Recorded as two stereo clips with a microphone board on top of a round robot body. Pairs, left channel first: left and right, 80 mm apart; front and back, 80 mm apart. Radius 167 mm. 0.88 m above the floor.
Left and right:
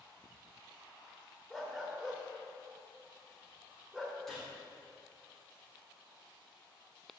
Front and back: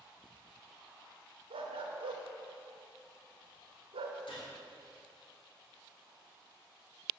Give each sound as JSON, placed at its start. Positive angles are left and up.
{"t": 1.5, "sound": "a dog barking", "azimuth_deg": -175, "distance_m": 0.8}
{"t": 4.3, "sound": "a gunshot", "azimuth_deg": 5, "distance_m": 3.0}